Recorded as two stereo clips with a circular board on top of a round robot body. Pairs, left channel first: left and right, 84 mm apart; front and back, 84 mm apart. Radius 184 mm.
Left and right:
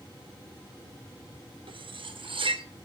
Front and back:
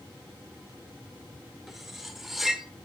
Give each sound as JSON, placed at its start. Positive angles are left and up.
{"t": 1.7, "sound": "cutlery clinking", "azimuth_deg": -90, "distance_m": 1.3}